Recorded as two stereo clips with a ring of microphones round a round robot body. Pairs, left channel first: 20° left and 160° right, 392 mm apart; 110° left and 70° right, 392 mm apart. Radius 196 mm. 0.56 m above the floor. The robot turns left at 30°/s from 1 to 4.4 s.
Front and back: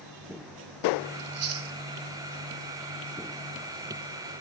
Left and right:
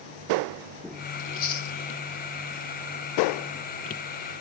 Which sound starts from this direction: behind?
Chewing, at 1.2 s.